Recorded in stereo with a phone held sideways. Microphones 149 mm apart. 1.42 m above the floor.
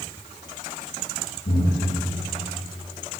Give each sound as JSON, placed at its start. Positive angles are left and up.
{"t": 1.4, "sound": "breathing", "side_deg": 85, "distance_m": 1.5}